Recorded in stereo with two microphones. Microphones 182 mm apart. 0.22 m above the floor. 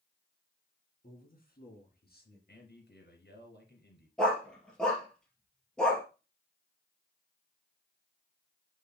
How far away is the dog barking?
About 2 m.